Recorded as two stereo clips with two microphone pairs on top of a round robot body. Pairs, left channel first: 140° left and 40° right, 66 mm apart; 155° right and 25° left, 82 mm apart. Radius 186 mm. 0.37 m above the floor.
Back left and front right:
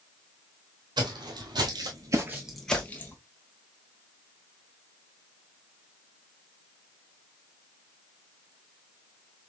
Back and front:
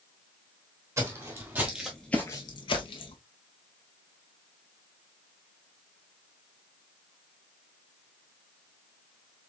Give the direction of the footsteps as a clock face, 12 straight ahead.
1 o'clock.